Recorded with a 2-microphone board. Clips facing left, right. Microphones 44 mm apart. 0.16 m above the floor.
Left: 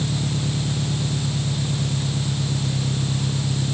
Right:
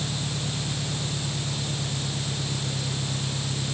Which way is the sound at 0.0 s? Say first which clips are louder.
Left 6 dB; 80° left.